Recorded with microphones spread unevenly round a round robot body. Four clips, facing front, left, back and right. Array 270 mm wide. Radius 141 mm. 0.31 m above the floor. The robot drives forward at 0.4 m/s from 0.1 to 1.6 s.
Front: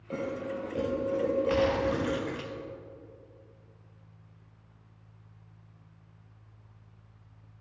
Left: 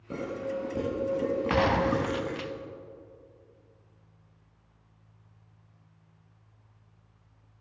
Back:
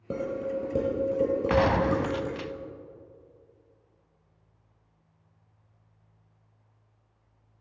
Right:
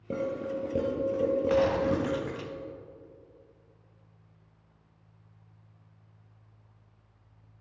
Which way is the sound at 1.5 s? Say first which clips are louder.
Left 2 dB, back 3 dB; 130° left.